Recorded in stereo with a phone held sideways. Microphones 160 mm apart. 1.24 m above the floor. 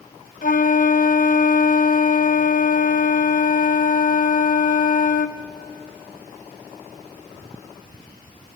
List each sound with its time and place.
0.4 s a flute: 55° left (ahead or behind), 0.7 m